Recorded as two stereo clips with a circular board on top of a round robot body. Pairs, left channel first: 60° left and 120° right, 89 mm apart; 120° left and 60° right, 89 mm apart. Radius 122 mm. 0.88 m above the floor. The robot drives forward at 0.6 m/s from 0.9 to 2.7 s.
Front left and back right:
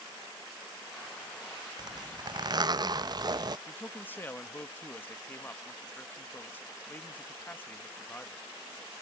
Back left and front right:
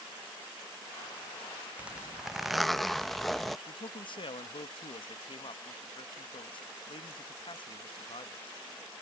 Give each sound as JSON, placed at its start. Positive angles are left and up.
{"t": 1.8, "sound": "a zipper", "azimuth_deg": -130}
{"t": 3.7, "sound": "a man speaking", "azimuth_deg": 125}